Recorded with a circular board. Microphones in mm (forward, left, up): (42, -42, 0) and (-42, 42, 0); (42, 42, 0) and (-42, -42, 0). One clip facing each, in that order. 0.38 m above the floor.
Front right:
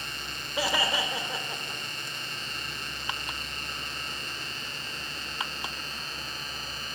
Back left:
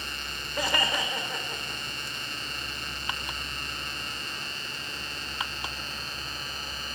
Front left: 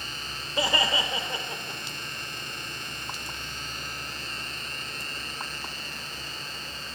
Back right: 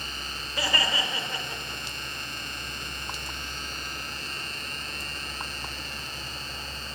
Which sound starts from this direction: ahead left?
Laughter, at 0.6 s.